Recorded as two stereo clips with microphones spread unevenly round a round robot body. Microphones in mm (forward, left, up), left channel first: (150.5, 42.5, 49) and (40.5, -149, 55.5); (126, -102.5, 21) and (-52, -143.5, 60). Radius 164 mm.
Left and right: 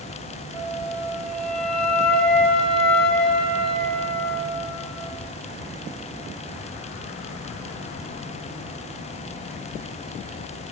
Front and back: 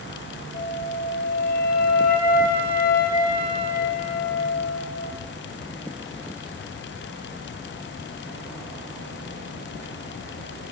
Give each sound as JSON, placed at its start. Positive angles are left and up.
{"t": 0.5, "sound": "a flute", "azimuth_deg": -25, "distance_m": 6.5}